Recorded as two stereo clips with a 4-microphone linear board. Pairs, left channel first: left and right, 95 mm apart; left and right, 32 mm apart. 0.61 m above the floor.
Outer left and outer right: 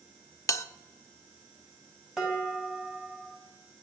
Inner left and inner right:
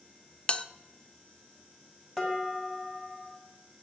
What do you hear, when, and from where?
0.5 s a bell: 35° left (ahead or behind), 0.5 m
2.2 s dishes clattering: centre (ahead or behind), 2.5 m